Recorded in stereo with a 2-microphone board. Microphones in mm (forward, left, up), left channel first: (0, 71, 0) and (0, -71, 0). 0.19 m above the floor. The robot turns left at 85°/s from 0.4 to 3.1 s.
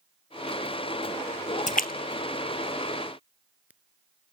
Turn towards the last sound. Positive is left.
turn(degrees=-10)  # may be behind; listen again after turning